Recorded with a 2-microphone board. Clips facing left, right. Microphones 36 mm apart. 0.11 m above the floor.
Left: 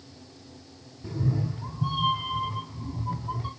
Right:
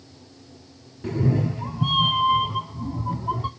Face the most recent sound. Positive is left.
turn(degrees=-50)  # may be behind; listen again after turning